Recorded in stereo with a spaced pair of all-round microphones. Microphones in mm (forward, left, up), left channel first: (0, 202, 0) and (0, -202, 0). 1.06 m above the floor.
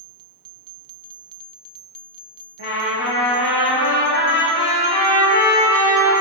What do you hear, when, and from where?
2.6 s a trumpet: 65° left (ahead or behind), 3 m